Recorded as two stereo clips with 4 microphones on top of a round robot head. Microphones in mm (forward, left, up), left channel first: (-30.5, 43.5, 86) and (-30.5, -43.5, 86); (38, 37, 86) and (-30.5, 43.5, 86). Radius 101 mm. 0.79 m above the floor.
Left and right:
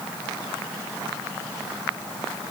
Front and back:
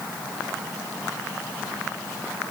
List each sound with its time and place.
Only background noise.